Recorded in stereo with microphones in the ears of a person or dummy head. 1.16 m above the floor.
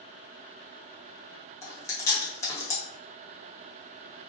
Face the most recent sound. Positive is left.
turn(degrees=20)  # may be behind; listen again after turning